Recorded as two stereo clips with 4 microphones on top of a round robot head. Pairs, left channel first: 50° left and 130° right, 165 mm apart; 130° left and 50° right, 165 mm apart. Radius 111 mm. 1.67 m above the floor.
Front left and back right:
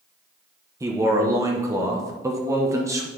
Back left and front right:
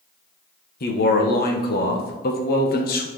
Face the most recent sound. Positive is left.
turn(degrees=160)